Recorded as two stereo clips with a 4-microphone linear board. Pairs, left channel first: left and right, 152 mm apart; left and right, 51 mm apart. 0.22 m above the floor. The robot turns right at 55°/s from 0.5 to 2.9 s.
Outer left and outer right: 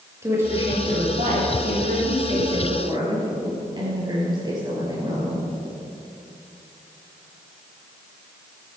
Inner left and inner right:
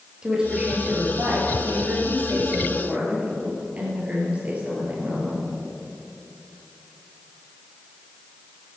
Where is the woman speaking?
160° right, 4.5 m; by 5.5 s 30° right, 4.5 m.